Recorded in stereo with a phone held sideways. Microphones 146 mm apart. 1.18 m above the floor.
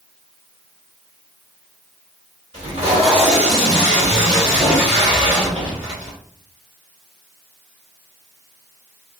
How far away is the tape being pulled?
About 2 m.